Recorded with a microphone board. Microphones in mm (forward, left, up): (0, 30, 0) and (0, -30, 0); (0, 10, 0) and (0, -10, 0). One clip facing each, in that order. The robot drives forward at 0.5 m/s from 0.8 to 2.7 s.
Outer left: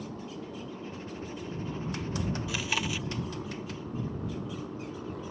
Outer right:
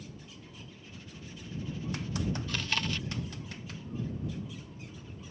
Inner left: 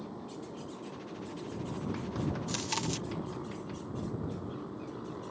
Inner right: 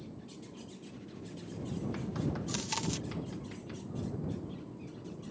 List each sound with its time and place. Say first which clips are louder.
0.0 s a motorcycle: outer left 9 dB, inner left 5 dB; 65° left (ahead or behind)
2.5 s chewing: outer left 2 dB, inner left 2 dB; 10° left (ahead or behind)